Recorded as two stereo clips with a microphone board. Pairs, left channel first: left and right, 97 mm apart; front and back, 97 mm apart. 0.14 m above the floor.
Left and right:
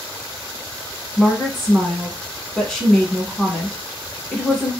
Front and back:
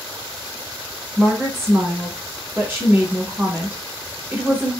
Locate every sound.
1.2 s a woman speaking: 175° left, 1.1 m